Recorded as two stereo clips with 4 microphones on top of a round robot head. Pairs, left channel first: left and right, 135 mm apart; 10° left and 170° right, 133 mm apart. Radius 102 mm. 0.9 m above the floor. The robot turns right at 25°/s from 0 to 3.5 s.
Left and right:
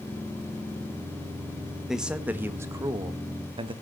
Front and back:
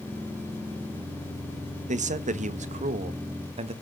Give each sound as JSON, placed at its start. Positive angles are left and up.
{"t": 1.9, "sound": "a man speaking", "azimuth_deg": 180, "distance_m": 1.3}